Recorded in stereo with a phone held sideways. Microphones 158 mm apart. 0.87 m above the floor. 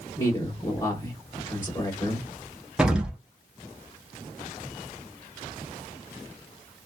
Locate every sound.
0.2 s a man speaking: 15° left (ahead or behind), 1.0 m
2.8 s an explosion: 5° right (ahead or behind), 0.6 m